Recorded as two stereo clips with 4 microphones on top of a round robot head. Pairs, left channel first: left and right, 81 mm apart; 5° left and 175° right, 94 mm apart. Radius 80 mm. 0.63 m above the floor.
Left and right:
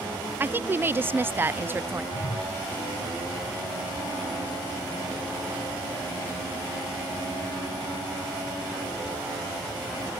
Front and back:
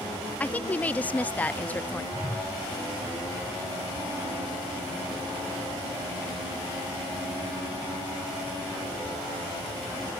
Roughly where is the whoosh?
Left.